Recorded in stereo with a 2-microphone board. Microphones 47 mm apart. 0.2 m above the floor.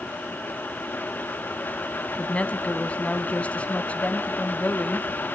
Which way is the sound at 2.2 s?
30° left (ahead or behind).